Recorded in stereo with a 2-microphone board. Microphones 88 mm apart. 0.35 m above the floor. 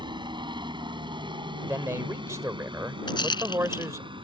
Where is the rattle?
60° left (ahead or behind).